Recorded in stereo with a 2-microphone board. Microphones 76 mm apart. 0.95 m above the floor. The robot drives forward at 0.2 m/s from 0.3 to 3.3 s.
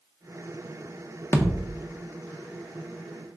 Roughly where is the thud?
Left.